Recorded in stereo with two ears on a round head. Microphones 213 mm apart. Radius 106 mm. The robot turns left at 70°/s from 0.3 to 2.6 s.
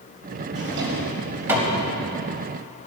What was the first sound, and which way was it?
A drawer, 75° right (ahead or behind).